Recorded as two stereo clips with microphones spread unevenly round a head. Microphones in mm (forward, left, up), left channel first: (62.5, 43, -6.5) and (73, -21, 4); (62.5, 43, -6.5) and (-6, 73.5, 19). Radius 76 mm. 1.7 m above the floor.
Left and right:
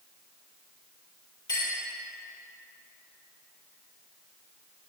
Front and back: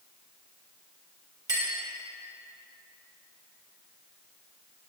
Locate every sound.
1.5 s a clink: 135° left, 5 m